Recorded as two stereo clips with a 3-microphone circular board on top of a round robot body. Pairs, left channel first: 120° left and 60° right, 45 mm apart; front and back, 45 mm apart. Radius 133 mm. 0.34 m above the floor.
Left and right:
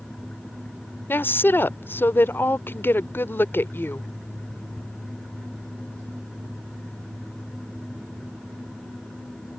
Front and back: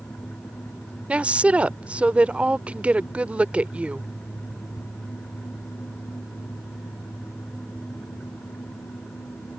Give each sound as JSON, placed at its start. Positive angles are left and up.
{"t": 1.1, "sound": "a woman speaking", "azimuth_deg": 125}